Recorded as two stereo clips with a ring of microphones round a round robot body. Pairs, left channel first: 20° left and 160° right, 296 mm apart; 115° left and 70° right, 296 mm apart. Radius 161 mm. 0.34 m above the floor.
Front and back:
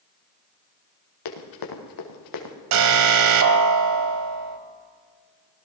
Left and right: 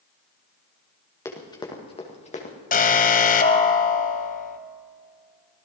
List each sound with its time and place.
1.2 s running footsteps: 30° left, 3.5 m; by 2.5 s 45° left, 3.5 m
2.7 s an alarm: 175° left, 1.4 m